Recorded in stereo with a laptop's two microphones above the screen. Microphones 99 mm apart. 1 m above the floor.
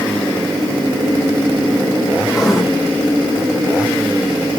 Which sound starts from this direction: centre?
Writing, at 2.3 s.